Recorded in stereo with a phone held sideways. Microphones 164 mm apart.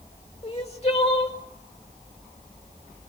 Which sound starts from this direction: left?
Crying, at 0.4 s.